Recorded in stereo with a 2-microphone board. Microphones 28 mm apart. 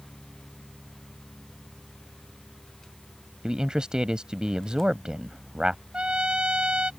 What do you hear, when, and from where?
3.4 s a man speaking: 30° right (ahead or behind)
5.9 s a trumpet: 40° right (ahead or behind)